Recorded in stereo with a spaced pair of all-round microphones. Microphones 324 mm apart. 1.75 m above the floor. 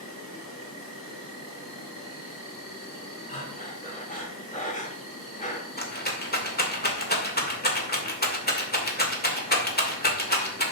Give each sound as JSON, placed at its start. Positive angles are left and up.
{"t": 0.0, "sound": "an insect", "side_deg": 85, "distance_m": 3.5}
{"t": 3.3, "sound": "breathing", "side_deg": 25, "distance_m": 2.0}
{"t": 5.8, "sound": "a rattle", "side_deg": 30, "distance_m": 2.0}